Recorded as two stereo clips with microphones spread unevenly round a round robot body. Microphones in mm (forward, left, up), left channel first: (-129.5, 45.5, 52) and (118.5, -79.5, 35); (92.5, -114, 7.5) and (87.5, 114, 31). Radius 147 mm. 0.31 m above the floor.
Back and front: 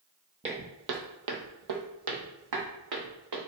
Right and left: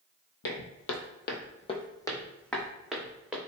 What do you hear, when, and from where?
0.4 s footsteps: 95° right, 0.5 m; by 3.4 s 5° left, 1.3 m